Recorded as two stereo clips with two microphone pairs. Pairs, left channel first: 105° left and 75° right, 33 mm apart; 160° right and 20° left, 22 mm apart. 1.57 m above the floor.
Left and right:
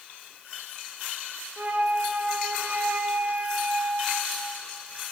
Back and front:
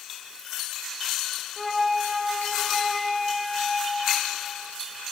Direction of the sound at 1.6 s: 70° right.